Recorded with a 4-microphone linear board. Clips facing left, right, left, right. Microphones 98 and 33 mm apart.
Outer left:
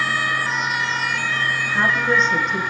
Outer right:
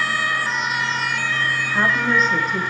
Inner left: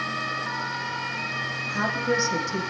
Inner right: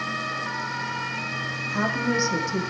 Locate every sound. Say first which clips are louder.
1.7 s a woman speaking: even, inner right 1 dB; 10° right (ahead or behind), 5.5 m; by 2.7 s centre (ahead or behind), 5.5 m